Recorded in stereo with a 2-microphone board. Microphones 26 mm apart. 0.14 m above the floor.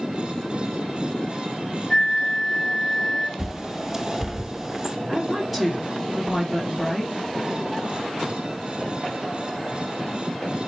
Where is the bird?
20° right (ahead or behind), 0.7 m.